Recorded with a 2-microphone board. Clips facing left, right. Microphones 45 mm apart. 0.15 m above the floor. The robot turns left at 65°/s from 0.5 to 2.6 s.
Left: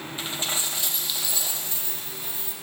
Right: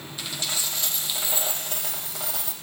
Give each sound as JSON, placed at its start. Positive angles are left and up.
{"t": 0.2, "sound": "a dropped coin", "azimuth_deg": 25, "distance_m": 2.0}